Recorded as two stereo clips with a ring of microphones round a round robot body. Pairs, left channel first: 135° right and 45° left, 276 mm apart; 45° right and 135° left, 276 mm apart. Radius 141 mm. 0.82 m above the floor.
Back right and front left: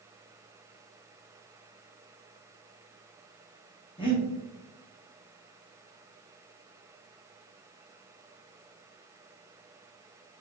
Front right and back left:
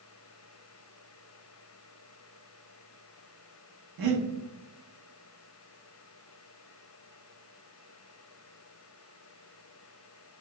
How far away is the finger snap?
I don't hear a finger snap.